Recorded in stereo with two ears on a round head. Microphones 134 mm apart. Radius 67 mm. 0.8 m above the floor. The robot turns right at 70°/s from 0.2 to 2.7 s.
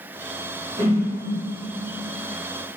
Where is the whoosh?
30° right (ahead or behind), 1.8 m; by 1.1 s 10° right (ahead or behind), 1.8 m.